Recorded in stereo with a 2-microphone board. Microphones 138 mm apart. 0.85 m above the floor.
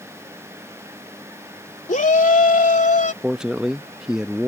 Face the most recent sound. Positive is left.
turn(degrees=-5)  # may be behind; listen again after turning